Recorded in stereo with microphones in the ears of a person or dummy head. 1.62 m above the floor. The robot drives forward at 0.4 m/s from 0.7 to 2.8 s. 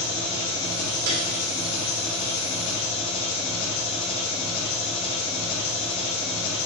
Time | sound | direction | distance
0.0 | an engine running | 75° left (ahead or behind) | 3 m
1.1 | a piano | 65° right (ahead or behind) | 2 m